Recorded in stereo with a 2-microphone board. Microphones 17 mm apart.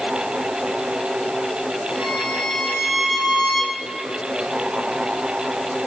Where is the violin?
70° right (ahead or behind), 3.5 m.